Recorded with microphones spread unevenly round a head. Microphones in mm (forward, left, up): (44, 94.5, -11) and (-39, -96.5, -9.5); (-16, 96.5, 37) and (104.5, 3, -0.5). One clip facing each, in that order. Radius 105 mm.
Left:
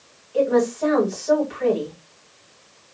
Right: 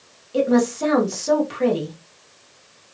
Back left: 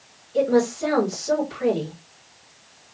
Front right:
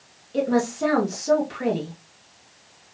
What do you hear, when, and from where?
0.3 s a woman speaking: 80° right, 1.4 m